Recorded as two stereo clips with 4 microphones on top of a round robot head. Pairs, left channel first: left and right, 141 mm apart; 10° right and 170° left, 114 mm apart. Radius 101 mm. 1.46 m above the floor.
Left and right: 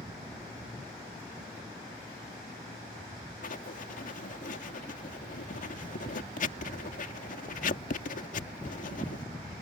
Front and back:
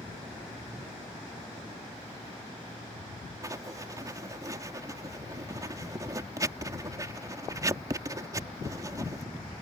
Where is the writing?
110° left.